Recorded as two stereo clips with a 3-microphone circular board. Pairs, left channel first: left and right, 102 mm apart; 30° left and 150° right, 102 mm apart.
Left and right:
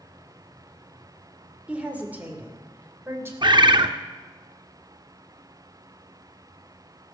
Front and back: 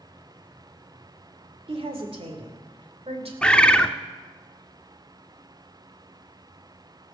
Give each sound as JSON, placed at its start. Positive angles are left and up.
{"t": 1.7, "sound": "a woman speaking", "azimuth_deg": -170, "distance_m": 2.0}
{"t": 3.4, "sound": "a bird", "azimuth_deg": -50, "distance_m": 0.6}